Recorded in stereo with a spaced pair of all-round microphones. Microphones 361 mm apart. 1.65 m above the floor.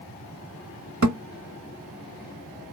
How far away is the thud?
About 1.3 m.